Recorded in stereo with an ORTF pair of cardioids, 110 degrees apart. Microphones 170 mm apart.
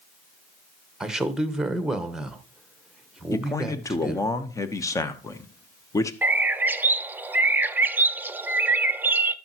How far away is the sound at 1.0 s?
About 1.3 m.